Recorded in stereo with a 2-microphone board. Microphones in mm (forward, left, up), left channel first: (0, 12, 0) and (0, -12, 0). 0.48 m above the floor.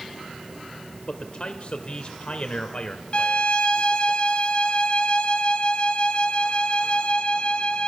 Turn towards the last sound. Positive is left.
turn(degrees=45)  # may be behind; listen again after turning